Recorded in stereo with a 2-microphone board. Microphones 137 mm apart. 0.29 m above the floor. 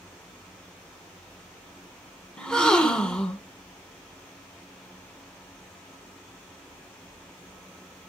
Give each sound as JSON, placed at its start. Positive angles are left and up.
{"t": 2.4, "sound": "a gasp", "side_deg": 5, "distance_m": 0.7}